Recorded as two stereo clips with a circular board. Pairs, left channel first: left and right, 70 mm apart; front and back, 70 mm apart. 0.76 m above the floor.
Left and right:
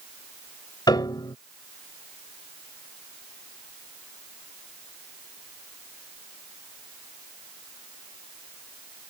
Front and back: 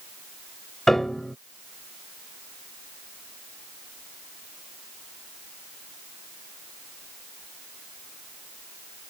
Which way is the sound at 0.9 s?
85° left.